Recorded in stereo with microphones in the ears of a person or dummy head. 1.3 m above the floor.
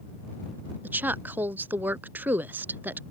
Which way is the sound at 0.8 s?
10° right (ahead or behind).